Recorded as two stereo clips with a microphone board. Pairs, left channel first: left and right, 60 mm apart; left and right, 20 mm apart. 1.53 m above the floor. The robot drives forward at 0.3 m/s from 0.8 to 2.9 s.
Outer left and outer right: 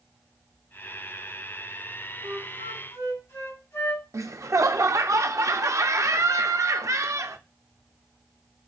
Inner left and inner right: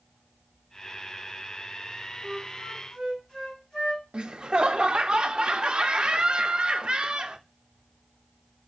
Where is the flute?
50° left (ahead or behind), 3 m.